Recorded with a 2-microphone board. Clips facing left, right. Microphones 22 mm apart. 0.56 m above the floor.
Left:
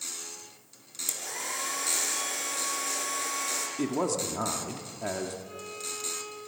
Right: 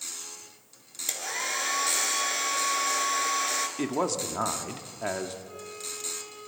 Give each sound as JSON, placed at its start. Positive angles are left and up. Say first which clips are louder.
{"t": 1.1, "sound": "a hair dryer", "louder": "right 5 dB", "side_deg": -30, "distance_m": 2.0}
{"t": 3.8, "sound": "a man speaking", "louder": "right 1 dB", "side_deg": -20, "distance_m": 1.3}
{"t": 5.4, "sound": "a violin", "louder": "left 1 dB", "side_deg": 15, "distance_m": 5.5}